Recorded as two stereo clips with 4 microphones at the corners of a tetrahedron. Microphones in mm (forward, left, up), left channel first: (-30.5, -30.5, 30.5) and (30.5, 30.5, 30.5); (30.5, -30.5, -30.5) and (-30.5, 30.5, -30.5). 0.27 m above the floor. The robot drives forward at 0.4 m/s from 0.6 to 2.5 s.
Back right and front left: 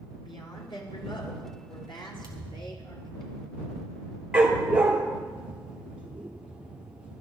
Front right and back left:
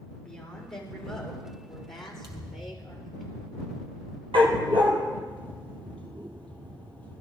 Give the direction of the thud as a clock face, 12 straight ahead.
9 o'clock.